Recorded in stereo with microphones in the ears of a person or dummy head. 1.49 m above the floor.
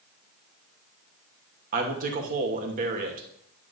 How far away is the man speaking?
About 1.2 m.